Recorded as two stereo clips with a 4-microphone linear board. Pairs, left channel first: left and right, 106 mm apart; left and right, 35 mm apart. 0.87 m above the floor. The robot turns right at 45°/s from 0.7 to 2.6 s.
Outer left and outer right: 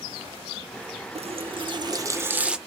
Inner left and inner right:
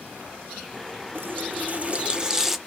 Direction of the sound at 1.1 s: 70° right.